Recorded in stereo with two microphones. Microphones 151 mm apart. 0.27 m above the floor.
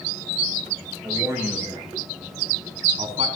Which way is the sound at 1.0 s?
15° right (ahead or behind).